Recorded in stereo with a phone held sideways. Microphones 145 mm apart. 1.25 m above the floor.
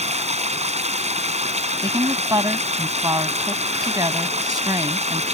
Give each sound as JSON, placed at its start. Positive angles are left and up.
{"t": 0.0, "sound": "running water", "side_deg": -50}
{"t": 1.8, "sound": "a woman speaking", "side_deg": -25}